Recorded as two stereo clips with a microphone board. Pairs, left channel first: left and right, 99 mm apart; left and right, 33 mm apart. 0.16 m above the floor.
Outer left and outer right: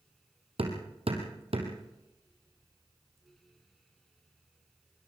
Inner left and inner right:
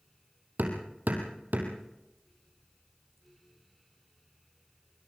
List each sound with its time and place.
0.6 s hammering: 75° right (ahead or behind), 3.5 m